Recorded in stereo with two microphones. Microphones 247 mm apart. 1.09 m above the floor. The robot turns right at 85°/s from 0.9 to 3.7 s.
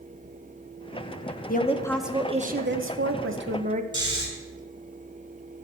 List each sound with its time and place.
1.5 s a woman speaking: 135° left, 0.8 m; by 3.8 s 35° right, 0.8 m
3.9 s snoring: 15° right (ahead or behind), 3.5 m